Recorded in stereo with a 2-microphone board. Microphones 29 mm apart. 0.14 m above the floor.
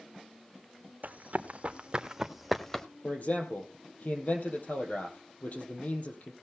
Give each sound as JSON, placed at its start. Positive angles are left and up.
{"t": 1.0, "sound": "running footsteps", "side_deg": -65, "distance_m": 1.8}
{"t": 3.0, "sound": "a man speaking", "side_deg": 60, "distance_m": 4.0}